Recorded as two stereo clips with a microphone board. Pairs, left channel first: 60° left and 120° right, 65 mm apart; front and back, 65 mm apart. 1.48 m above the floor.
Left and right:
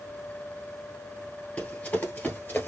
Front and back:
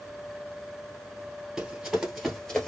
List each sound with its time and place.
1.6 s running footsteps: 110° left, 1.6 m; by 2.7 s 70° left, 1.6 m